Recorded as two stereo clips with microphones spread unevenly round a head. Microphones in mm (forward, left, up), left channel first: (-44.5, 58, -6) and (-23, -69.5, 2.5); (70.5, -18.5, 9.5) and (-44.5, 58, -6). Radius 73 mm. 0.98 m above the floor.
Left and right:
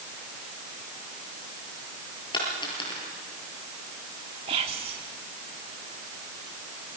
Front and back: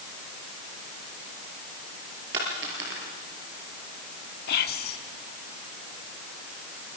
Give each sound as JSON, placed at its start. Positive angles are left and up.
{"t": 2.3, "sound": "a dropped coin", "azimuth_deg": 155, "distance_m": 8.0}
{"t": 4.5, "sound": "whispering", "azimuth_deg": -25, "distance_m": 2.5}